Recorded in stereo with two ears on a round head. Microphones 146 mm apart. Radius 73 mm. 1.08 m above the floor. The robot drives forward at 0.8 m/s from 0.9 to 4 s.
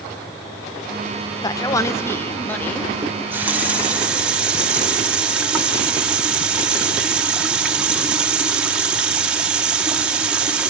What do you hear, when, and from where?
1.4 s a man speaking: 25° left (ahead or behind), 0.7 m; by 2.9 s 10° left (ahead or behind), 1.7 m
3.0 s a running tap: 15° right (ahead or behind), 0.7 m; by 10.7 s 5° right (ahead or behind), 1.5 m